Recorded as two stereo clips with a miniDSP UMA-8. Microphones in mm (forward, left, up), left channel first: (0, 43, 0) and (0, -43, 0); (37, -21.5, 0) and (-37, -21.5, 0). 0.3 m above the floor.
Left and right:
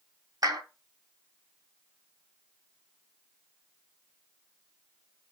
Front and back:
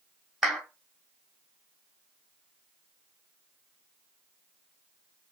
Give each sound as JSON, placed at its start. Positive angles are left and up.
{"t": 0.4, "sound": "a clap", "azimuth_deg": -100, "distance_m": 1.5}